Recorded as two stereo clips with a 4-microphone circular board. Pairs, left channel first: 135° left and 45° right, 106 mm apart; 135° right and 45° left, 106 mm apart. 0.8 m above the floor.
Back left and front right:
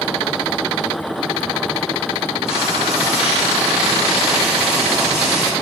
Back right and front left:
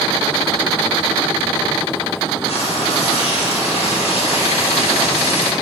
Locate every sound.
2.5 s frying: 125° right, 2.5 m